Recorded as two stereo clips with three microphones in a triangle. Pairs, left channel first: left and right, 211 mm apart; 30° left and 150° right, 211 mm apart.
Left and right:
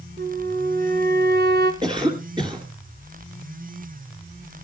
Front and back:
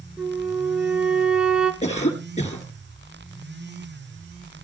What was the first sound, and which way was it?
A flute, 65° right.